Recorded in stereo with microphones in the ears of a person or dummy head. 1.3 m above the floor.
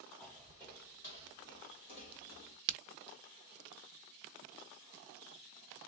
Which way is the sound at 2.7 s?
45° right (ahead or behind).